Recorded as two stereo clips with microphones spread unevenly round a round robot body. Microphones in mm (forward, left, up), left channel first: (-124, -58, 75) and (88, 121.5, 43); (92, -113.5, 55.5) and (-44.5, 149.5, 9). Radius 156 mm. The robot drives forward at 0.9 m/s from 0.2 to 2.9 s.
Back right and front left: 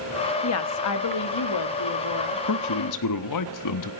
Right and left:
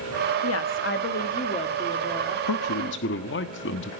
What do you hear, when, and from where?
0.4 s a woman speaking: 105° right, 1.7 m; by 2.4 s 145° right, 2.5 m
2.5 s a man speaking: 100° right, 1.2 m; by 3.9 s 120° right, 1.4 m